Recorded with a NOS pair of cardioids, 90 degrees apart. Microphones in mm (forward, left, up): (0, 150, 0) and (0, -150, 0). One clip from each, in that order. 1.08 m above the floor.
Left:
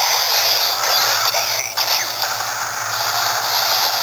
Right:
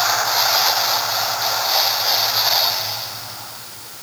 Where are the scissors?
I don't hear scissors.